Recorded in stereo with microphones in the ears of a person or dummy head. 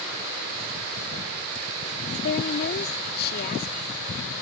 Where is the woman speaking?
60° left (ahead or behind).